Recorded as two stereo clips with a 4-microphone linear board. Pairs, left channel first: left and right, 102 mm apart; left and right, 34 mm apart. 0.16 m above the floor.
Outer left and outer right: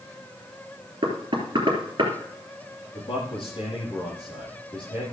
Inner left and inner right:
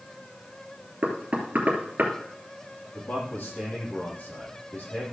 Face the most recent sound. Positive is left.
turn(degrees=55)  # may be behind; listen again after turning